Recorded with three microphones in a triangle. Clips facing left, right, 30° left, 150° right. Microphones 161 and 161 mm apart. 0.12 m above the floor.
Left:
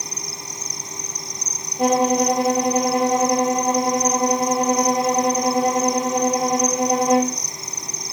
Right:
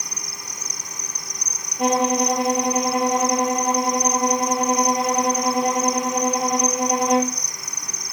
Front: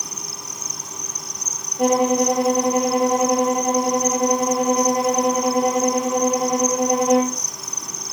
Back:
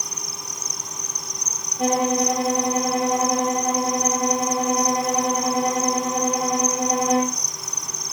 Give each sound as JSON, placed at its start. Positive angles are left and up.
{"t": 0.0, "sound": "an insect", "azimuth_deg": 25, "distance_m": 1.2}
{"t": 1.8, "sound": "a violin", "azimuth_deg": 45, "distance_m": 3.0}